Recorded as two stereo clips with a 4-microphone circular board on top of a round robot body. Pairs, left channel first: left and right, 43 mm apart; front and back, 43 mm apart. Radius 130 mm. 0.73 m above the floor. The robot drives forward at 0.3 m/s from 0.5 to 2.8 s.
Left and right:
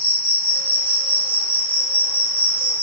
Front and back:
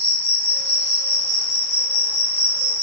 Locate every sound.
0.0 s an insect: 80° right, 1.9 m; by 2.8 s 120° right, 1.9 m